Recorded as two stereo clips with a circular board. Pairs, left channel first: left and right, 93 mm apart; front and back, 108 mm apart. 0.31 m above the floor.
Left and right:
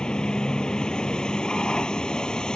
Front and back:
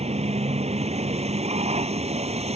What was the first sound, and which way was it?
A vehicle, 170° left.